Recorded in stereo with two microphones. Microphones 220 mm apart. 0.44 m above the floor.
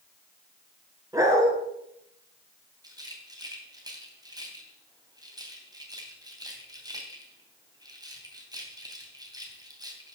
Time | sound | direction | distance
1.1 | a dog barking | 15° right (ahead or behind) | 3 m
2.8 | a rattle | 20° right (ahead or behind) | 2.5 m